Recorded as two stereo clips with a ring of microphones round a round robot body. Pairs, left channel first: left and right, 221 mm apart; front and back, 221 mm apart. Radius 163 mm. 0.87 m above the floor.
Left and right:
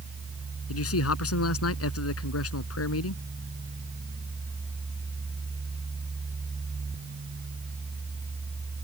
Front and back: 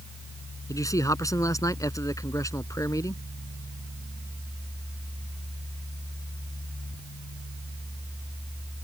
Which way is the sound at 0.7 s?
75° left.